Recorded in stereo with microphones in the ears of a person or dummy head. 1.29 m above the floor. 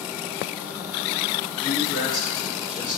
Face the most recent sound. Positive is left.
turn(degrees=50)  # may be behind; listen again after turning